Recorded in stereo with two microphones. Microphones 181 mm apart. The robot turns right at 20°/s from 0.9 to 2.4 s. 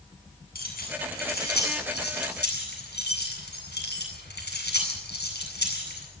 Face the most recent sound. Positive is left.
turn(degrees=85)